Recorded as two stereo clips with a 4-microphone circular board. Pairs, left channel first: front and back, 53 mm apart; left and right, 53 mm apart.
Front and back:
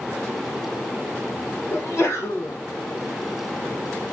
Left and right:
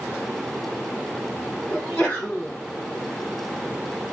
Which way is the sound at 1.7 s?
40° left.